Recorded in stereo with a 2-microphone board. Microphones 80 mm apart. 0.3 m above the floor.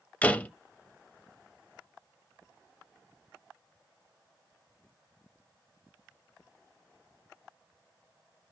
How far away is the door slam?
About 0.7 m.